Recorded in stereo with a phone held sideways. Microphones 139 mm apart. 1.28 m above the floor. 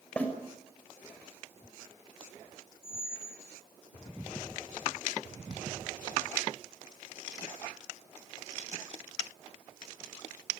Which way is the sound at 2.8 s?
80° left.